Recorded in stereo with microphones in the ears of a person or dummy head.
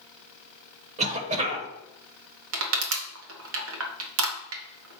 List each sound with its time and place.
1.0 s a cough: 40° right (ahead or behind), 1.3 m
2.5 s crushing: 85° right, 1.1 m